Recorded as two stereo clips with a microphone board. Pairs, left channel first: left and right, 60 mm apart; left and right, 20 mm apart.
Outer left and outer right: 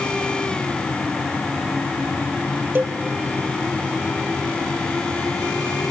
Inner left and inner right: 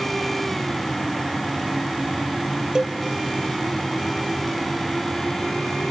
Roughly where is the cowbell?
Right.